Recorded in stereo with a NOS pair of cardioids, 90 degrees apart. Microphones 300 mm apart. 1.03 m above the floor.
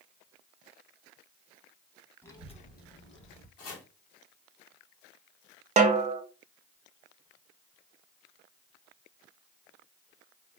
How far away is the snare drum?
About 0.6 m.